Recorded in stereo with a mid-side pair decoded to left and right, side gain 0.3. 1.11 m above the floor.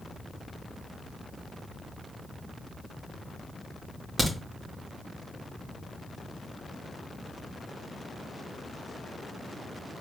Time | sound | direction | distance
4.2 | a crack | 40° right | 1.9 m